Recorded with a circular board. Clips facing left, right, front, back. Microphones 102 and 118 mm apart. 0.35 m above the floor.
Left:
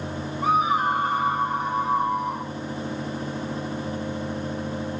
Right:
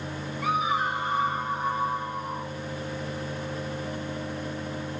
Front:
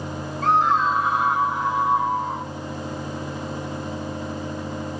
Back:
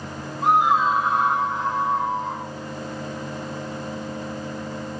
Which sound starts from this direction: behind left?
A scream, at 0.4 s.